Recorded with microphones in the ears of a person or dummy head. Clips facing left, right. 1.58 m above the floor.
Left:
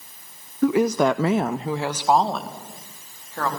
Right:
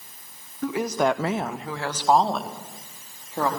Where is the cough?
I don't hear a cough.